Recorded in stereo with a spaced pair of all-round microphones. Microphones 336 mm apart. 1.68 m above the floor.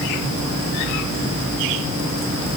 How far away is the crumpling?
I don't hear crumpling.